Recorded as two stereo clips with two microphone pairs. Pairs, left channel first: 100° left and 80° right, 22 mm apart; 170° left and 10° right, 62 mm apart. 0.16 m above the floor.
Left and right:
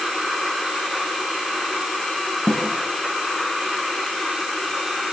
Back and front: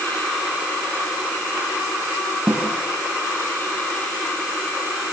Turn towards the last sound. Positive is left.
turn(degrees=60)